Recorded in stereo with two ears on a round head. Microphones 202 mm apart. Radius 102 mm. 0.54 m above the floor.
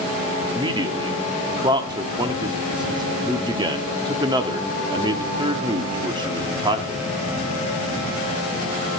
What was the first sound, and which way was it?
A man speaking, 20° right (ahead or behind).